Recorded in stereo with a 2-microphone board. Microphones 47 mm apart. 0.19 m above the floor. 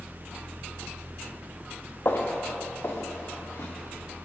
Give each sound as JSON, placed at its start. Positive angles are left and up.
{"t": 2.0, "sound": "footsteps", "side_deg": 50, "distance_m": 2.0}